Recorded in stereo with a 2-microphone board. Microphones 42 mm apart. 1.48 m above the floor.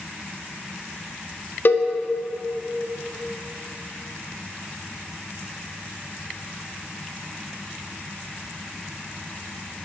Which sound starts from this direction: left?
A cowbell, at 1.6 s.